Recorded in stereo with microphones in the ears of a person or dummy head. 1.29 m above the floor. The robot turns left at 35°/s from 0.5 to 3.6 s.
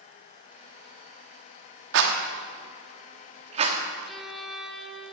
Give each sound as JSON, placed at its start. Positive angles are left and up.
{"t": 1.9, "sound": "a rattle", "side_deg": -60, "distance_m": 1.2}
{"t": 4.1, "sound": "a violin", "side_deg": 0, "distance_m": 0.9}